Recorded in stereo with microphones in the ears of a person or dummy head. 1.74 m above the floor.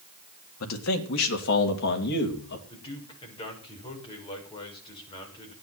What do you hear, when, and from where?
0.6 s a man speaking: 80° left, 2 m; by 2.6 s 60° left (ahead or behind), 3.5 m
2.7 s a man speaking: 30° left (ahead or behind), 6.5 m